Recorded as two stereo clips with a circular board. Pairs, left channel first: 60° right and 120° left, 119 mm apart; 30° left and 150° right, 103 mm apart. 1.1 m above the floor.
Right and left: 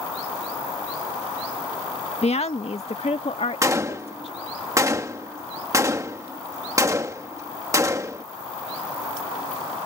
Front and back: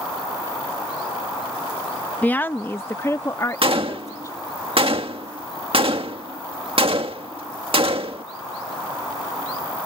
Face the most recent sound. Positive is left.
turn(degrees=-175)